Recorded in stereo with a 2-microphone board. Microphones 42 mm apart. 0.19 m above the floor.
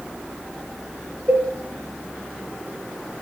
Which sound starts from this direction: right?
A cowbell, at 1.3 s.